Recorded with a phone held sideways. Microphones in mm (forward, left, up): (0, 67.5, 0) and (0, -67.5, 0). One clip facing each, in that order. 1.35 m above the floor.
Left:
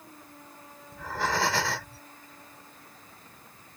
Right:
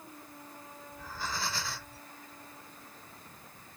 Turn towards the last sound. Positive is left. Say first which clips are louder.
# left 10 dB
turn(degrees=85)